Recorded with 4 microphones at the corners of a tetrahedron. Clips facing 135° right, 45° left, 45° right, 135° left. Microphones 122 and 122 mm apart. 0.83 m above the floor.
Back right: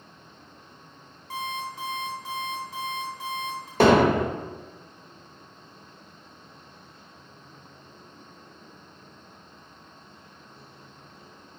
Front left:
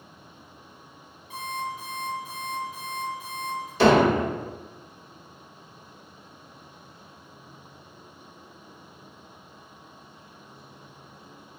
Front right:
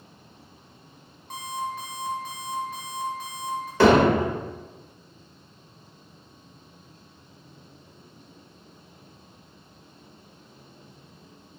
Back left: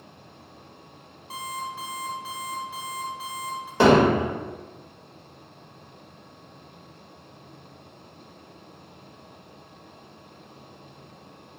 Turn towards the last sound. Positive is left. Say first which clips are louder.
# even, even
turn(degrees=-160)